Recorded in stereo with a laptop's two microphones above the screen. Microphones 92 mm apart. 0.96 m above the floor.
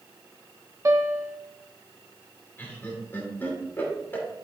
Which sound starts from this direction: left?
Laughter, at 2.6 s.